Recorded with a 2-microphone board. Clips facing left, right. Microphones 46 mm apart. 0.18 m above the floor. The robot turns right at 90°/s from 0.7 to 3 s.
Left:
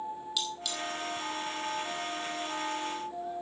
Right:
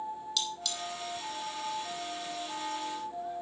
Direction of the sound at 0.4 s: 10° left (ahead or behind).